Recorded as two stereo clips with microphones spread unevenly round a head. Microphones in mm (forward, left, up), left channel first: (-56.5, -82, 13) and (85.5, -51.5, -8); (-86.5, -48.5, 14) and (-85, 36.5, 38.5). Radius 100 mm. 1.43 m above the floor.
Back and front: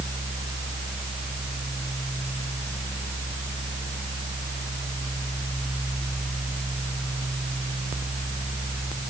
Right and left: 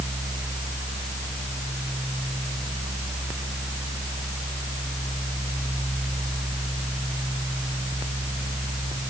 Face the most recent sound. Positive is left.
No sound to turn to.